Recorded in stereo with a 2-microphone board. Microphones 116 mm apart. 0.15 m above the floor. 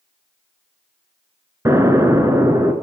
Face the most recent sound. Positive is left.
turn(degrees=-25)  # may be behind; listen again after turning